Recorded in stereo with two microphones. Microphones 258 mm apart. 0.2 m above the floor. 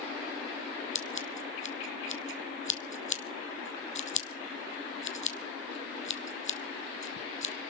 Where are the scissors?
55° left (ahead or behind), 1.0 m.